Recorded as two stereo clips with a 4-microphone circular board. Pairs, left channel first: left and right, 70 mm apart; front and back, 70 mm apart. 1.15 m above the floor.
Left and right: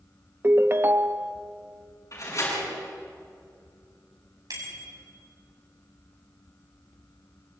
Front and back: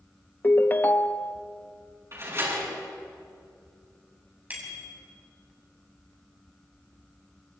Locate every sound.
0.4 s a ringtone: 50° right, 0.6 m
2.1 s a door slam: 130° left, 8.5 m
4.5 s a bicycle bell: 115° right, 5.5 m